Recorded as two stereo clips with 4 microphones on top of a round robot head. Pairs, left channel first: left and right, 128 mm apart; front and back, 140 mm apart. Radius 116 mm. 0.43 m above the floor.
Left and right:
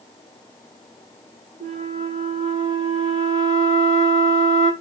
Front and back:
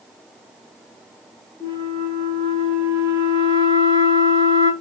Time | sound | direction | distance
1.6 | a flute | 70° right | 2.5 m